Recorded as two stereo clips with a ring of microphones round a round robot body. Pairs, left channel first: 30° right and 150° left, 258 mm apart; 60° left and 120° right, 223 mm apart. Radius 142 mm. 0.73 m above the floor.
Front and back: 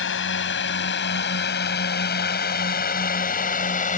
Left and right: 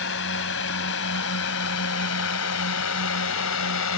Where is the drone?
15° left; by 4.0 s 30° left.